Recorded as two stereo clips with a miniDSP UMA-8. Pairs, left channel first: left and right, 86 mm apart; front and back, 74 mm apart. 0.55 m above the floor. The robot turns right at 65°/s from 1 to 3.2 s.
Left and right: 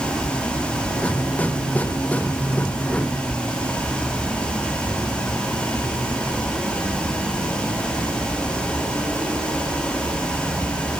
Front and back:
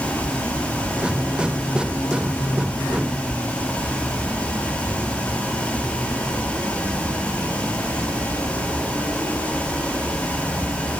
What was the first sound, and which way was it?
Only background noise.